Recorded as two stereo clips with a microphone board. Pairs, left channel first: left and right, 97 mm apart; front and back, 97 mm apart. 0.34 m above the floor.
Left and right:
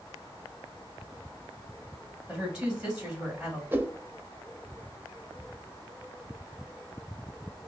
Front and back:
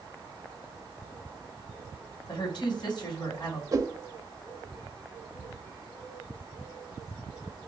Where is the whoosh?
150° right, 0.5 m.